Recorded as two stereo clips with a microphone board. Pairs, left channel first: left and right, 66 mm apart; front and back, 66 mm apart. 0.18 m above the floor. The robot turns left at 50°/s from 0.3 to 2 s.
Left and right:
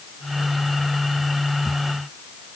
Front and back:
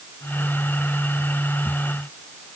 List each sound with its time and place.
Only background noise.